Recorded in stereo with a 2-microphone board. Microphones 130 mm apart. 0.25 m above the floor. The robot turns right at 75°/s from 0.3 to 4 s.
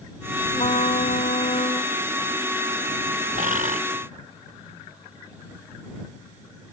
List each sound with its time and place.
0.5 s a trumpet: 50° left; by 1.9 s 150° left
3.3 s a bird: 100° right; by 3.8 s 65° right